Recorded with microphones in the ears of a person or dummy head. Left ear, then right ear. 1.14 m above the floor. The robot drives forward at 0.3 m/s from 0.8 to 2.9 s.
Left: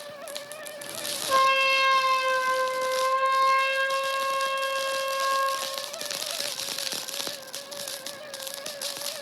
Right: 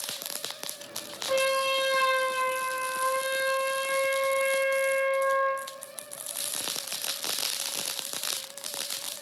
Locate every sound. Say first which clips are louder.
1.3 s a trumpet: left 5 dB; 75° right (ahead or behind), 0.9 m; by 5.6 s 50° right (ahead or behind), 1.2 m